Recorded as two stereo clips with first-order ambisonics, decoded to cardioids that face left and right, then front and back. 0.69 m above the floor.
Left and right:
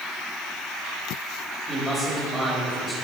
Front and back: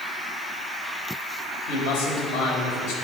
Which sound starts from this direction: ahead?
A man speaking, at 1.7 s.